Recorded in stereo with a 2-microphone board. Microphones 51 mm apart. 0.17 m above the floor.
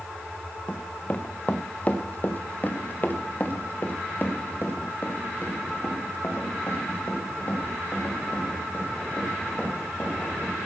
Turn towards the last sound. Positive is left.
turn(degrees=40)  # may be behind; listen again after turning